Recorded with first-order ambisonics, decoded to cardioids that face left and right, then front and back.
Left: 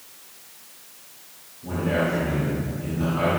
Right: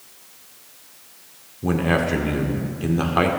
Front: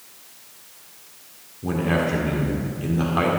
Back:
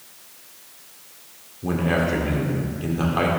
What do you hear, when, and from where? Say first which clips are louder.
1.6 s a man speaking: right 3 dB, even; 90° right, 1.4 m